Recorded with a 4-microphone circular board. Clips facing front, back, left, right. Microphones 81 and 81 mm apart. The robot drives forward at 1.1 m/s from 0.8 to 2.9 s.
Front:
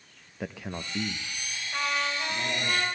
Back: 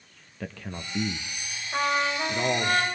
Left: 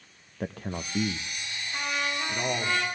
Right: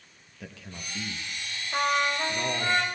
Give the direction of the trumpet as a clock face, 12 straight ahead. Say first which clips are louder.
Back 5 dB, right 6 dB; 4 o'clock.